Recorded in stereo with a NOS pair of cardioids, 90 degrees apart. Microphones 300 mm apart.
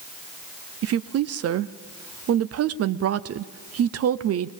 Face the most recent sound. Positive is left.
turn(degrees=-50)